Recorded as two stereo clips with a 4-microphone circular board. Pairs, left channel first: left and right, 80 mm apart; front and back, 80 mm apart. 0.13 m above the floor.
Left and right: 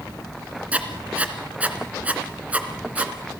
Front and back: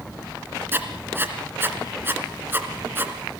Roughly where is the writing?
Behind right.